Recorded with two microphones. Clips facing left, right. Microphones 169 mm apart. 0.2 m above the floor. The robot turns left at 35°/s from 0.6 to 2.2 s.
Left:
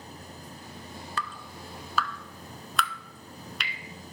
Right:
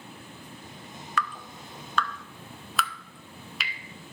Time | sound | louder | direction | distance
1.2 | dripping | right 6 dB | 30° left (ahead or behind) | 0.7 m